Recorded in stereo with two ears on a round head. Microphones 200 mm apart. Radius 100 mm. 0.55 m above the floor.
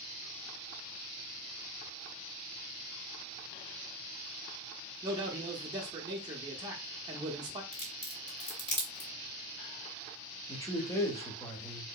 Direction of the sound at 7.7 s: 40° left (ahead or behind).